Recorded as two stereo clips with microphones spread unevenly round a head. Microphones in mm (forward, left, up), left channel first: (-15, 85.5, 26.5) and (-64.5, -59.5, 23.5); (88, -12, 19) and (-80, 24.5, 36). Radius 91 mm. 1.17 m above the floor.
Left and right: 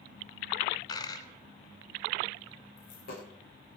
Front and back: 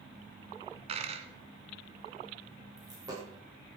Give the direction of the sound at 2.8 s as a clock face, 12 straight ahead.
9 o'clock.